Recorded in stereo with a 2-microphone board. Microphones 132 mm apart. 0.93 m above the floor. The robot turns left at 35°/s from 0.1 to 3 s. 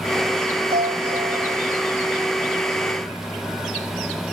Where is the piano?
85° right; by 1.6 s 115° right.